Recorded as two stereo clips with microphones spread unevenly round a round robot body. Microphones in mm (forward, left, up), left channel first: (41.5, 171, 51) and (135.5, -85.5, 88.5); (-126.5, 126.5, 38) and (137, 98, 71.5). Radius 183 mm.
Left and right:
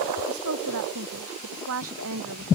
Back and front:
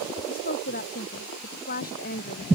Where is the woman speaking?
120° right.